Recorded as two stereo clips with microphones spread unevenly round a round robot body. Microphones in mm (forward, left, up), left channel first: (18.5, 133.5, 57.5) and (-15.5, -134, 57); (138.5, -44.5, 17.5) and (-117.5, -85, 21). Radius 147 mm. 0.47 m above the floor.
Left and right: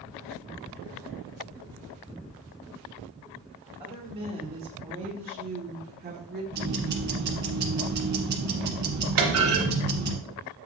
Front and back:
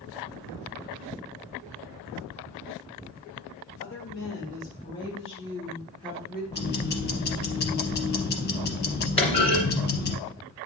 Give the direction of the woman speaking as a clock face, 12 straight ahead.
1 o'clock.